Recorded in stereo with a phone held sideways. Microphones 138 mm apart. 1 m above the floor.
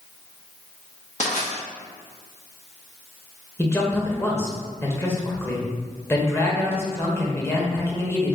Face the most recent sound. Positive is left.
turn(degrees=20)  # may be behind; listen again after turning